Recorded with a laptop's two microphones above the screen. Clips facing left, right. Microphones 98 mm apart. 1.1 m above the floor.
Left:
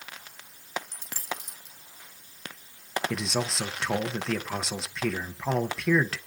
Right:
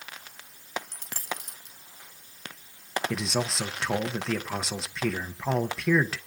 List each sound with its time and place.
0.9 s a dropped coin: 80° right, 4 m
3.1 s a man speaking: 5° right (ahead or behind), 0.8 m